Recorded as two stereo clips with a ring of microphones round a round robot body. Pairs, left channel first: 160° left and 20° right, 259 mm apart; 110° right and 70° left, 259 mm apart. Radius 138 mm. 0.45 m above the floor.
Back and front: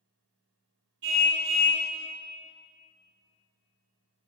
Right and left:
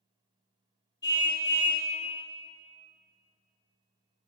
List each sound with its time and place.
1.0 s a car horn: 35° right, 5 m